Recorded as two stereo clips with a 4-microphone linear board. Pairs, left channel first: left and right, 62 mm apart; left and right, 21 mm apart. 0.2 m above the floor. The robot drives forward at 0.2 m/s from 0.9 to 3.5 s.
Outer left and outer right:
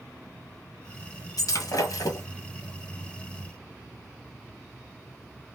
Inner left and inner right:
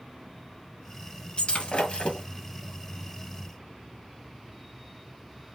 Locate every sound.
1.4 s breaking glass: 75° left (ahead or behind), 1.6 m; by 2.3 s 70° left (ahead or behind), 1.6 m